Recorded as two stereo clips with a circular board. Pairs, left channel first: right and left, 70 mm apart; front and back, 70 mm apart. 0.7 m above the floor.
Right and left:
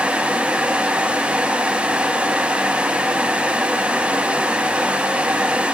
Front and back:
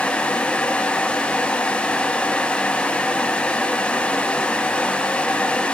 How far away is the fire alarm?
I don't hear a fire alarm.